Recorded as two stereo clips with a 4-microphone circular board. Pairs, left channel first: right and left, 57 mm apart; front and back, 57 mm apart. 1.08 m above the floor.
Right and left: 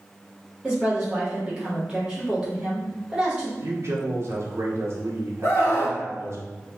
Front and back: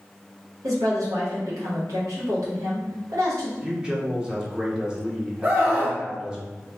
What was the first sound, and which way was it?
A woman speaking, 165° left.